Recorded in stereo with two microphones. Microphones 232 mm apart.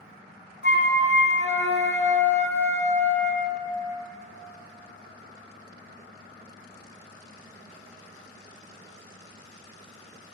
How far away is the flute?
About 1.6 m.